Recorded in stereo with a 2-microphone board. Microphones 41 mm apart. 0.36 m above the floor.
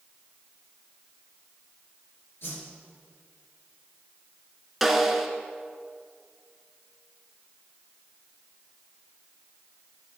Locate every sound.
2.4 s a whoosh: 65° left (ahead or behind), 2.5 m
4.8 s a snare drum: 5° right (ahead or behind), 1.0 m